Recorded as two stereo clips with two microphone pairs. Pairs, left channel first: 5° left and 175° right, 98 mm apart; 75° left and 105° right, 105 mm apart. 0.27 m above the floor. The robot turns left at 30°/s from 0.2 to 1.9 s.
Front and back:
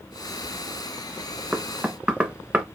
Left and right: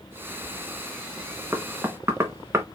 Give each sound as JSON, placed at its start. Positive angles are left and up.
{"t": 1.5, "sound": "knocking", "azimuth_deg": -105, "distance_m": 0.7}